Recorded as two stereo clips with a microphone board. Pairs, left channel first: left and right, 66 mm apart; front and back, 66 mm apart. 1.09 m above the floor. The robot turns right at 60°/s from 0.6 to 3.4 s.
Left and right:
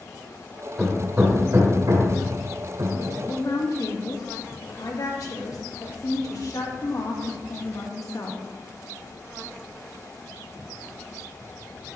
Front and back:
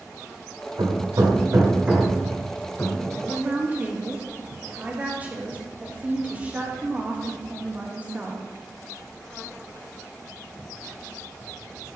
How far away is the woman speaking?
About 1.7 m.